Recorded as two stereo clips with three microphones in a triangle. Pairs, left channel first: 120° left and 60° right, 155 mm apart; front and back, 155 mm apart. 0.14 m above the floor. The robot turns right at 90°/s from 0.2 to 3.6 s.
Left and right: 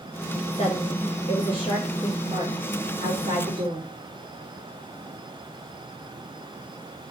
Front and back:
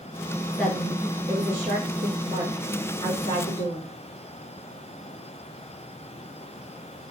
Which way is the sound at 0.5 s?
75° left.